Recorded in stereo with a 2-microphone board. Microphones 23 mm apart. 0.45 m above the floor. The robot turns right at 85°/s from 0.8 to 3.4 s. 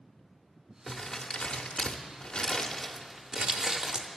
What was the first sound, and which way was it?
Crumpling, 5° left (ahead or behind).